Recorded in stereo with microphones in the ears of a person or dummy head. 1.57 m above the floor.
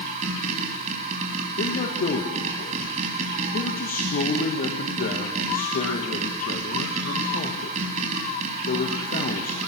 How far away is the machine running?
About 4 m.